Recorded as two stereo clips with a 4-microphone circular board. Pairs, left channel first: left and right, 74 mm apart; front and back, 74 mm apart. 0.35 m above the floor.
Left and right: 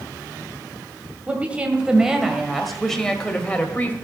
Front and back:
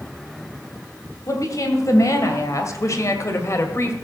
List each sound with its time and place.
1.3 s a woman speaking: 25° right, 2 m; by 3.9 s 35° left, 1.9 m